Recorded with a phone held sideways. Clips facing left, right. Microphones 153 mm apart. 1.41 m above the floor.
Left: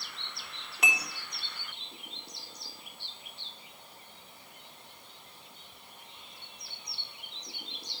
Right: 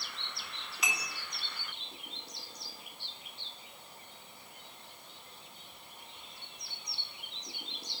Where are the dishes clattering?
60° left (ahead or behind), 1.5 m.